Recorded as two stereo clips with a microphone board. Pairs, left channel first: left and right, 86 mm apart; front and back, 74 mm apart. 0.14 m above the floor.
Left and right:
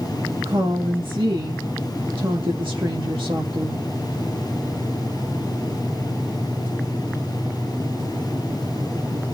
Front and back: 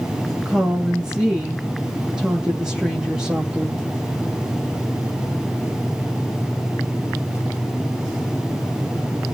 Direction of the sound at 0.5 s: 105° right.